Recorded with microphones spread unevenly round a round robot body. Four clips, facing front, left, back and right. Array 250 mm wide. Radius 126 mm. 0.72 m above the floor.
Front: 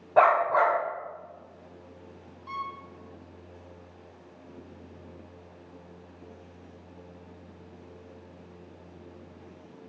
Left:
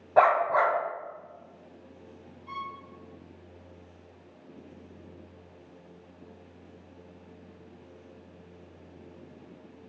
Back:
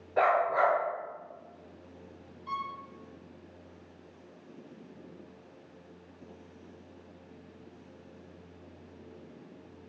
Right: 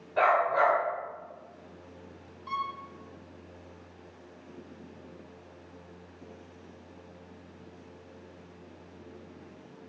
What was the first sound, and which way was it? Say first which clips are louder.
A dog barking: left 3 dB, front 5 dB; 40° left.